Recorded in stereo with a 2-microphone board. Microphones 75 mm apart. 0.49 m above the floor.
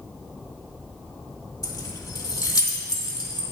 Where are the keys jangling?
55° left (ahead or behind), 0.9 m; by 3.4 s 75° left (ahead or behind), 2.0 m.